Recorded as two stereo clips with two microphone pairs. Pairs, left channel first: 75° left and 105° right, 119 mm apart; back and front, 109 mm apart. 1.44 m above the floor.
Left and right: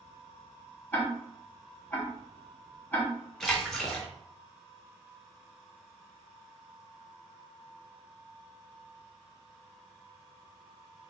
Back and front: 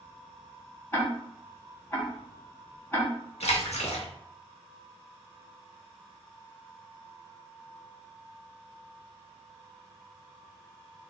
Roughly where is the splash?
Behind.